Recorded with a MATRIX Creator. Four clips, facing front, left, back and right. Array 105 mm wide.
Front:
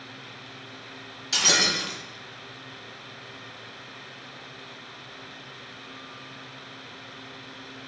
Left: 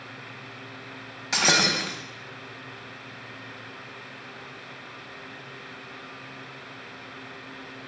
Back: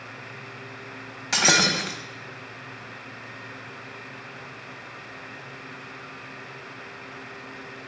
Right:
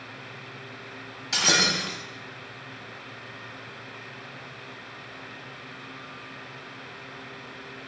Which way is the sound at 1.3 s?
160° left.